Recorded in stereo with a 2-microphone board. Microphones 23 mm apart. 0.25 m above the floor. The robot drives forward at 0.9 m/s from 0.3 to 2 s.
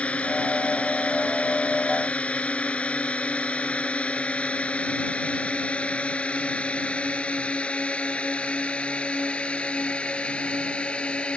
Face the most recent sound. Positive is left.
turn(degrees=55)  # may be behind; listen again after turning